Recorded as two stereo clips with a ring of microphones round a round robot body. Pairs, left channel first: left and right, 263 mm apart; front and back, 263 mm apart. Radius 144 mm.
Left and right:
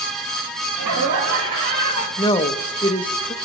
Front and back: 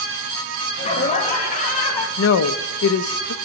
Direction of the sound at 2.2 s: 20° left.